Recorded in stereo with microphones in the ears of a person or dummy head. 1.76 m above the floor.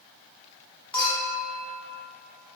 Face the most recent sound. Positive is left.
turn(degrees=5)  # may be behind; listen again after turning